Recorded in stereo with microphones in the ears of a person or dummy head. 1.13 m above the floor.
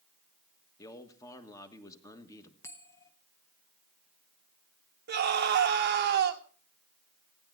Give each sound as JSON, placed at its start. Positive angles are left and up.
{"t": 0.8, "sound": "a man speaking", "side_deg": 20, "distance_m": 1.3}
{"t": 2.6, "sound": "a bell", "side_deg": 10, "distance_m": 0.9}
{"t": 5.1, "sound": "a scream", "side_deg": -55, "distance_m": 1.3}